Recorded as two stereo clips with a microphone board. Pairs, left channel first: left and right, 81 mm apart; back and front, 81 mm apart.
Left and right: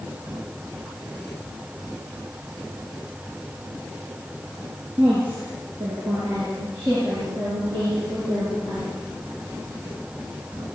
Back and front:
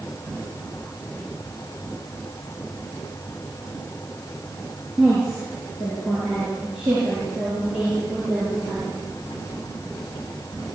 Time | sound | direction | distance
5.0 | a woman speaking | 90° right | 7.5 m